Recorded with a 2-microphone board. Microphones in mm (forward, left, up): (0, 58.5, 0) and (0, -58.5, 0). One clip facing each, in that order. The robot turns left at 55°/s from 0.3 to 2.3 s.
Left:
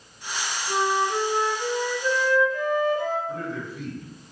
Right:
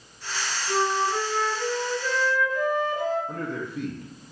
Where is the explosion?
No explosion in this recording.